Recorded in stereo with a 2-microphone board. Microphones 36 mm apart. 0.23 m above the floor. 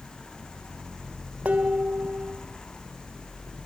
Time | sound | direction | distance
1.4 | dishes clattering | 40° right (ahead or behind) | 1.2 m